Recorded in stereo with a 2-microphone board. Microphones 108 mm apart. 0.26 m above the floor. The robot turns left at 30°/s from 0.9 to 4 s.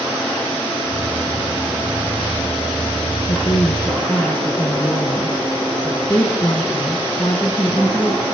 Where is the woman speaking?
50° left (ahead or behind), 2 m; by 8.2 s 30° left (ahead or behind), 2 m.